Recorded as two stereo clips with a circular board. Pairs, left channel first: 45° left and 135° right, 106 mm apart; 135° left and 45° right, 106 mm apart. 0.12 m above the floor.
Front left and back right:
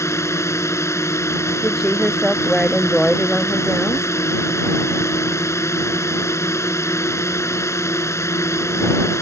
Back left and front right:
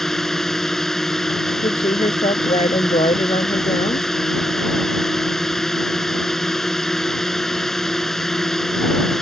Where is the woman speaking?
135° left.